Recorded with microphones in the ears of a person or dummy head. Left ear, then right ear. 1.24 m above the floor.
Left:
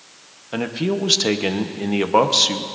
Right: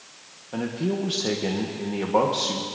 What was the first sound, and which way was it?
A man speaking, 80° left.